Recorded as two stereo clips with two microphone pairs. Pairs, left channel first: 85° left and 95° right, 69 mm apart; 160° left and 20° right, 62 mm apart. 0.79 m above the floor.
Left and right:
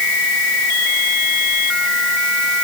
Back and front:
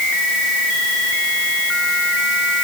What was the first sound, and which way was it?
Only background noise.